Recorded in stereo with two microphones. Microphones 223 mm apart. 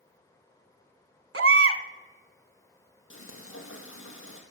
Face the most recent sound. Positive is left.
turn(degrees=75)  # may be behind; listen again after turning